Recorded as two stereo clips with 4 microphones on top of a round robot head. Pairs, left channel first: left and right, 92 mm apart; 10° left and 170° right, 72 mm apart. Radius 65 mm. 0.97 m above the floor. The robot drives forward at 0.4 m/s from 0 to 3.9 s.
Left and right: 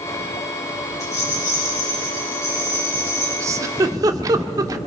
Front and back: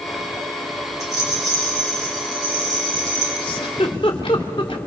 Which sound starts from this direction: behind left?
A rattle, at 1.0 s.